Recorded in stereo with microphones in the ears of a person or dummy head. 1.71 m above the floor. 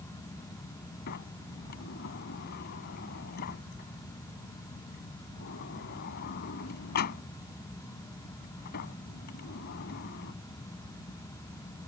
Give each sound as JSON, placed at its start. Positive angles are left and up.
{"t": 1.1, "sound": "a sliding door", "side_deg": 50}